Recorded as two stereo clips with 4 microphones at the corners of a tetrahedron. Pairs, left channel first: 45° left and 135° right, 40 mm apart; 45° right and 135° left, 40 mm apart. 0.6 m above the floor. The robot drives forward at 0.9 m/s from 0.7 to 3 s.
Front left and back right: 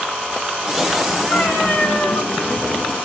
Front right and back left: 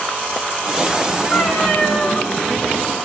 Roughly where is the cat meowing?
Ahead.